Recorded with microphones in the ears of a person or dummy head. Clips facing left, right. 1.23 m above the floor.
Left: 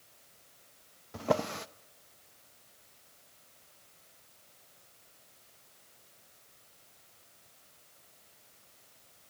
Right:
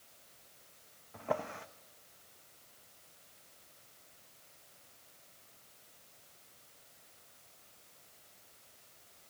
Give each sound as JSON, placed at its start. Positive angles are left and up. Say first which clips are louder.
{"t": 1.1, "sound": "a drawer", "louder": "left 6 dB", "side_deg": 55, "distance_m": 0.6}